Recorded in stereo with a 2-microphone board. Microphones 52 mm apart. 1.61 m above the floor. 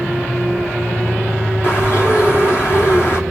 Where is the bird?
40° left (ahead or behind), 2.5 m.